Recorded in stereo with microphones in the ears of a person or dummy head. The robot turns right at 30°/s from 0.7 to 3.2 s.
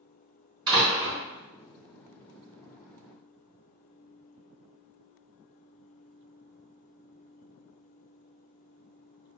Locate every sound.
0.7 s a door slam: 25° right (ahead or behind), 1.5 m; by 1.2 s 10° right (ahead or behind), 1.5 m